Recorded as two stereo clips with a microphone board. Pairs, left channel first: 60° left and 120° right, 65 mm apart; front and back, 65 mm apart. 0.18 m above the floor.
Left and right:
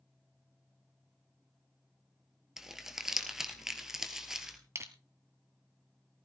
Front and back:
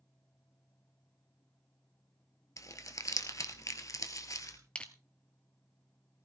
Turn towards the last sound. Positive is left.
turn(degrees=-75)